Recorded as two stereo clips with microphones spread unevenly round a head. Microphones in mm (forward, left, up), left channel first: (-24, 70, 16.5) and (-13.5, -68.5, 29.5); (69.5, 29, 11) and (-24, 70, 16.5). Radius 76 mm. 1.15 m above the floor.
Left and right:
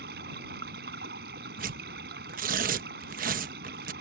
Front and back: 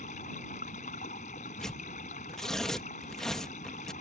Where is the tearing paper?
110° right.